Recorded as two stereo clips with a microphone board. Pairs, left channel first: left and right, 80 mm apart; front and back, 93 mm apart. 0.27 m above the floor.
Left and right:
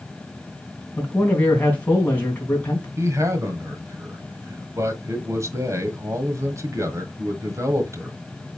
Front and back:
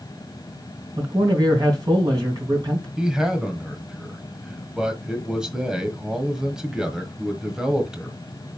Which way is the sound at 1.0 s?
155° left.